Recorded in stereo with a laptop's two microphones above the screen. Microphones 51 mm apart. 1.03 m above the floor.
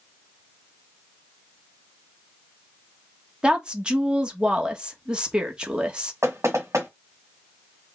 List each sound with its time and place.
3.4 s a woman speaking: 15° right (ahead or behind), 1.2 m
6.2 s knocking: 70° right (ahead or behind), 1.2 m